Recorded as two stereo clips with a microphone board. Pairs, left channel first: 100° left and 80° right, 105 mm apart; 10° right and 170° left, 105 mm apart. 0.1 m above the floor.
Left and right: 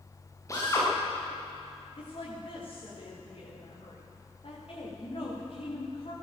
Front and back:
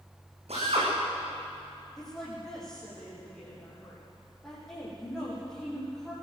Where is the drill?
160° left, 9 m.